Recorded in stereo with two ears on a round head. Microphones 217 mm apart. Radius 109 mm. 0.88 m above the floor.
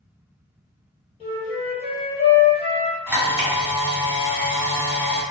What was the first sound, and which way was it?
A flute, 25° left (ahead or behind).